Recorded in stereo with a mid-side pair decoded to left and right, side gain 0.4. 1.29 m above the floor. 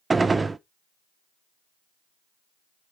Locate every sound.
0.1 s a gunshot: 30° right, 0.7 m